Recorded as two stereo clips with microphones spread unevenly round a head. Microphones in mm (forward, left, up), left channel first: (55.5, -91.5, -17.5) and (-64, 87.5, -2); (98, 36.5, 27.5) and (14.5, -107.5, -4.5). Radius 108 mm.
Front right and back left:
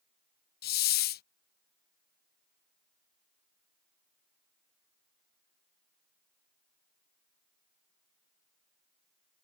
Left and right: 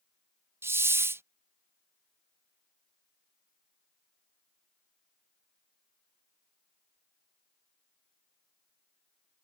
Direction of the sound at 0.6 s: 60° right.